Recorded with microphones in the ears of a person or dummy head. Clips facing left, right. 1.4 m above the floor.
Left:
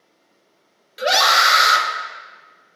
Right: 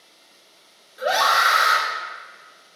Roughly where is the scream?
Left.